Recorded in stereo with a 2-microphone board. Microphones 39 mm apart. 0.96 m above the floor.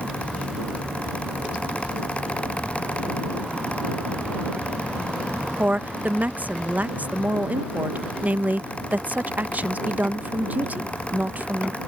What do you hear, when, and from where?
5.6 s a woman speaking: 45° right (ahead or behind)